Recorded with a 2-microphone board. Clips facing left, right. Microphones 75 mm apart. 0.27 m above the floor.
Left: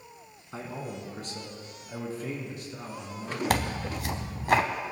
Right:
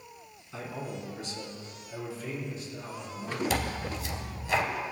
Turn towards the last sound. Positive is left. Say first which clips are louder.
# left 3 dB
turn(degrees=60)  # may be behind; listen again after turning